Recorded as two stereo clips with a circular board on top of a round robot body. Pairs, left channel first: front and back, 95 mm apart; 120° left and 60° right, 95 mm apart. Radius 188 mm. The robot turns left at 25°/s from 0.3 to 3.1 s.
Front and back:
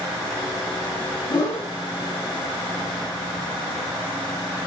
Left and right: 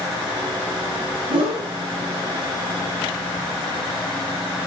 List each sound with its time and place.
1.3 s a whoosh: 55° right, 1.2 m; by 1.7 s 65° right, 1.2 m